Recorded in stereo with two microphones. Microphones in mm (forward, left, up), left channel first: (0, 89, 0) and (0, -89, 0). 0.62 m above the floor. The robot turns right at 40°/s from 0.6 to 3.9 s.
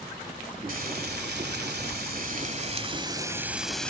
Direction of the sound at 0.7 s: 120° right.